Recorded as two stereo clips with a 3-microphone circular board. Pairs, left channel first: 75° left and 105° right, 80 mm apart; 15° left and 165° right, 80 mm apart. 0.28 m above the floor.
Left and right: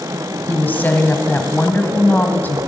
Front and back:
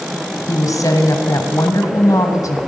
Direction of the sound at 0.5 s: 20° left.